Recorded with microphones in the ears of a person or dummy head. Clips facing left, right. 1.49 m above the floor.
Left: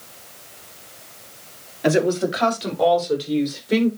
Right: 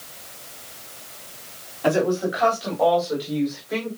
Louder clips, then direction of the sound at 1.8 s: Left 2 dB; 30° left (ahead or behind).